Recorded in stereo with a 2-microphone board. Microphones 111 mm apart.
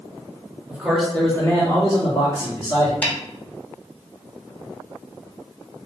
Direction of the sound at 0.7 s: 15° right (ahead or behind).